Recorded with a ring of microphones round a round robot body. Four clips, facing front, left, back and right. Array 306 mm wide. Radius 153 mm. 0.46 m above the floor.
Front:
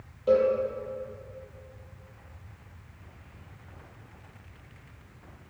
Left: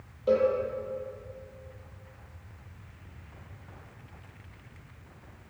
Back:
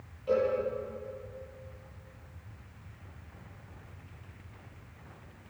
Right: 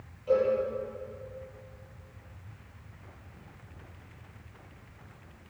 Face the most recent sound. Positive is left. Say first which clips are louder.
# left 2 dB, front 6 dB
turn(degrees=45)